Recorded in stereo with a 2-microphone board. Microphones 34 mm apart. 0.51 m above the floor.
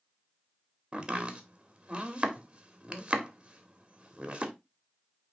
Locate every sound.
0.9 s chopping: 30° right (ahead or behind), 1.6 m